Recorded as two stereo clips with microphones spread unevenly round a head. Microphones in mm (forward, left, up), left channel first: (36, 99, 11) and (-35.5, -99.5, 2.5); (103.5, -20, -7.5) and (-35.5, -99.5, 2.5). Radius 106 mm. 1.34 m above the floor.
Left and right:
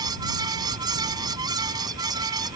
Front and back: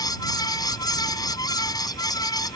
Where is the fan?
35° right.